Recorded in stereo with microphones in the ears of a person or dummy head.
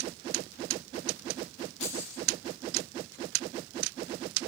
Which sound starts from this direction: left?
Keys jangling, at 1.8 s.